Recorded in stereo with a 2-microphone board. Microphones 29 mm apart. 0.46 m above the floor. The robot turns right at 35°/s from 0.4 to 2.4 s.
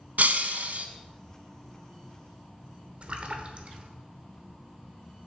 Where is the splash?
40° right (ahead or behind), 0.9 m.